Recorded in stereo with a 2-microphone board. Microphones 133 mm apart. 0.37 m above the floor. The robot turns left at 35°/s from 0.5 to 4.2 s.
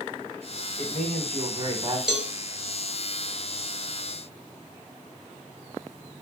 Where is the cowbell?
5° right (ahead or behind), 1.0 m; by 2.3 s 10° right (ahead or behind), 1.0 m.